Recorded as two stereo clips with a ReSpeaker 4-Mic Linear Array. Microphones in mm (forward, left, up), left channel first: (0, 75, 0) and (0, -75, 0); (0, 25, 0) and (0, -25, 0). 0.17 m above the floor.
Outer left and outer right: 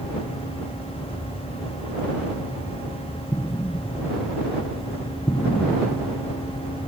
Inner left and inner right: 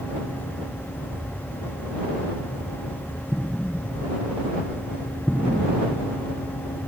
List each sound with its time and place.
3.3 s an explosion: 30° left (ahead or behind)